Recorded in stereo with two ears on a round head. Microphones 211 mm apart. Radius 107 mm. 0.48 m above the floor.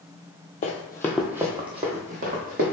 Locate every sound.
0.6 s running footsteps: 35° left (ahead or behind), 0.5 m; by 2.7 s 40° right (ahead or behind), 1.2 m